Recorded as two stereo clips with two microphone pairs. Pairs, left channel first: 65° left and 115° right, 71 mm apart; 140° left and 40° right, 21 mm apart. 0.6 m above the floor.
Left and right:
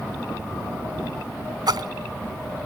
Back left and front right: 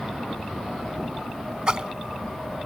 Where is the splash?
90° right.